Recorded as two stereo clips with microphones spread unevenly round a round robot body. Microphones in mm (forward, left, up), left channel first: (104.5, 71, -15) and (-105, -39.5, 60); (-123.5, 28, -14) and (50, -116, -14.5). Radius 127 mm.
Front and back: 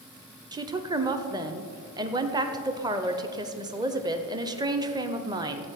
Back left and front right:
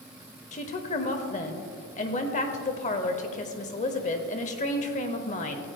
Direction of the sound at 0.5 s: 115° left.